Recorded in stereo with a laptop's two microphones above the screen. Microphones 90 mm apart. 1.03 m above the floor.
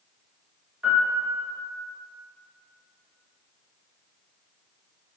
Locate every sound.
0.8 s a piano: 15° right (ahead or behind), 0.8 m